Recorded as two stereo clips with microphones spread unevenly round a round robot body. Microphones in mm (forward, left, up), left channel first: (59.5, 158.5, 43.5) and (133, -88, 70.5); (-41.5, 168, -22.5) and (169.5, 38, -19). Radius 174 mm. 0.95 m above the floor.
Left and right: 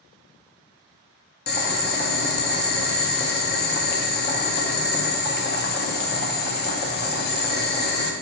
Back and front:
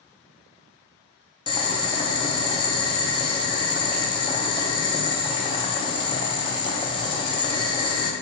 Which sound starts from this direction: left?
Boiling, at 1.5 s.